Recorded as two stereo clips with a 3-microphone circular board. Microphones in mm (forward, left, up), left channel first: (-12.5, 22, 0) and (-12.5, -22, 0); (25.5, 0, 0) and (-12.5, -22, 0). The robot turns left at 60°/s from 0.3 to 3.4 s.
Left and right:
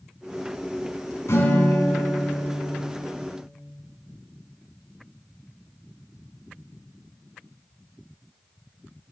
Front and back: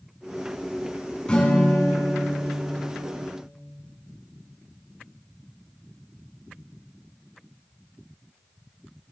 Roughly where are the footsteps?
I don't hear footsteps.